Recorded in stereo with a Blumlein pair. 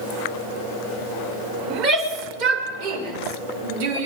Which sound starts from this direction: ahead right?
A shout, at 1.7 s.